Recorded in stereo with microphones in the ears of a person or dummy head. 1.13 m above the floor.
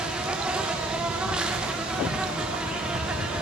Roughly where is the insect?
Centre.